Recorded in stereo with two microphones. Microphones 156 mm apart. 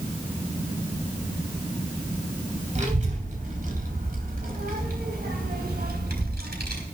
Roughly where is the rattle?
No rattle in this recording.